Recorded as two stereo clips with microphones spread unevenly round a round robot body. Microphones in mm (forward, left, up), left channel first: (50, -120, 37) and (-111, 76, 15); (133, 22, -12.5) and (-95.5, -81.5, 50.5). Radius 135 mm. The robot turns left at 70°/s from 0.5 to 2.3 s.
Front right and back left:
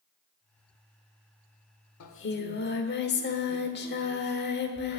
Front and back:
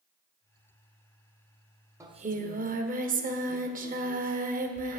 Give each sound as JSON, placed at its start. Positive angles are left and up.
{"t": 2.0, "sound": "singing", "azimuth_deg": -80, "distance_m": 1.4}